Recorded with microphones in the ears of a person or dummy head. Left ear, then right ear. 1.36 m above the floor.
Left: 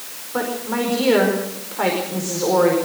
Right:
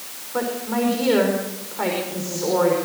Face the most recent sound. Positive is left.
turn(degrees=15)  # may be behind; listen again after turning